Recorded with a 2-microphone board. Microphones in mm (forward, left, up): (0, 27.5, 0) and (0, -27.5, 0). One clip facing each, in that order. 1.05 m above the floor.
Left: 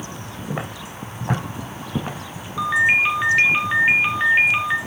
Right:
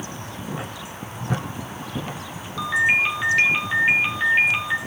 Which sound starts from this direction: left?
Footsteps, at 0.5 s.